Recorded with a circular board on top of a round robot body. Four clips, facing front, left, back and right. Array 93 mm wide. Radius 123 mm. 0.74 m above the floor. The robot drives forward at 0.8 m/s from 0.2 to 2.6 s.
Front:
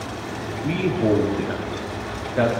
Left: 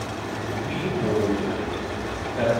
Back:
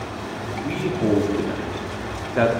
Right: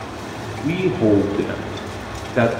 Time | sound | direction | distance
0.6 | a man speaking | 75° right | 2.0 m